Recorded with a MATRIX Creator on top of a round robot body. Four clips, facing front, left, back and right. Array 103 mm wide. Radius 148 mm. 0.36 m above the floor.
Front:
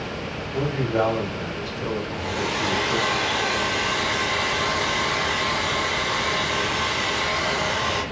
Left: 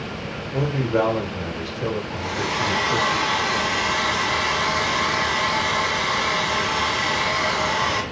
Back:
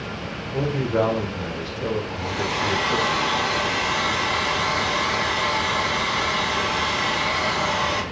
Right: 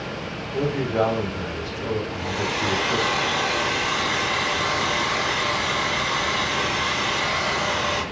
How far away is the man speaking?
About 2.5 m.